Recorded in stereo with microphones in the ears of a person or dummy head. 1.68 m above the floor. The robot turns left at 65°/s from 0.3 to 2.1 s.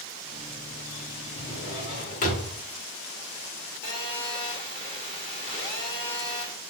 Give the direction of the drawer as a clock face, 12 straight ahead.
7 o'clock.